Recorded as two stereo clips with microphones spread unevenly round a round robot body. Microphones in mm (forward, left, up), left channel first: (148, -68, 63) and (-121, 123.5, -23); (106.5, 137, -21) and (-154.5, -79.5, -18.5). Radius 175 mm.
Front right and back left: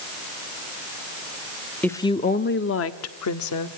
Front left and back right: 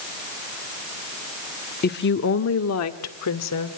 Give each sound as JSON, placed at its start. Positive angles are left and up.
{"t": 1.8, "sound": "a woman speaking", "azimuth_deg": 70, "distance_m": 0.9}